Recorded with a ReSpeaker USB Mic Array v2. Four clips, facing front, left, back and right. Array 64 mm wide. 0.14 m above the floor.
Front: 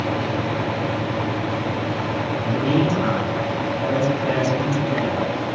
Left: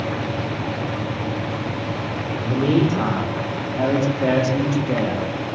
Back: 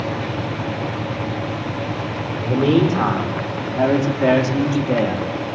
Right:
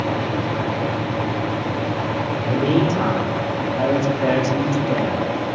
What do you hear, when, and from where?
2.4 s a man speaking: 170° left, 6.5 m; by 5.3 s 150° left, 6 m